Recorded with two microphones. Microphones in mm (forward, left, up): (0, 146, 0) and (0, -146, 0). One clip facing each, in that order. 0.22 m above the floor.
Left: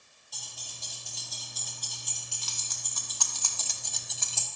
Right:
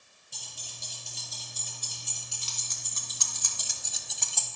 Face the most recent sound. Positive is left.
turn(degrees=10)  # may be behind; listen again after turning